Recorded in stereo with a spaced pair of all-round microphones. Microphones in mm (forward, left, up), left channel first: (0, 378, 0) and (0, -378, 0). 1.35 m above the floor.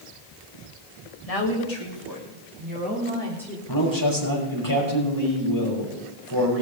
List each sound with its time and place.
1.3 s a woman speaking: 50° left (ahead or behind), 2 m; by 3.6 s centre (ahead or behind), 4 m
3.7 s a man speaking: 25° left (ahead or behind), 6 m